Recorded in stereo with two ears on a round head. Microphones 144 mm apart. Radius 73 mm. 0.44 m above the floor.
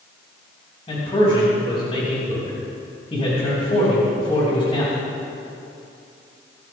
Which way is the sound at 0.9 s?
35° left (ahead or behind).